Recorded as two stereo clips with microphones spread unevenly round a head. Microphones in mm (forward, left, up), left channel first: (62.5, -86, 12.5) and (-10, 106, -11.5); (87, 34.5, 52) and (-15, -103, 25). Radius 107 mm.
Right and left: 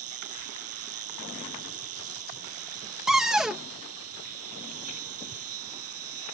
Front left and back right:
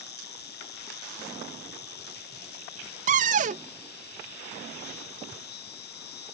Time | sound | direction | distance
0.0 | an insect | 100° left | ?
3.1 | a cupboard door | 165° right | ?